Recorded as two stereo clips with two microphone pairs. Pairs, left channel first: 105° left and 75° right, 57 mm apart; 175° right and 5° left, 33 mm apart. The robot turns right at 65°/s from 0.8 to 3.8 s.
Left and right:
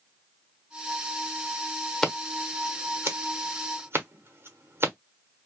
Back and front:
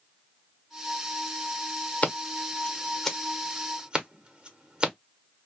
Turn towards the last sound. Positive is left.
turn(degrees=-55)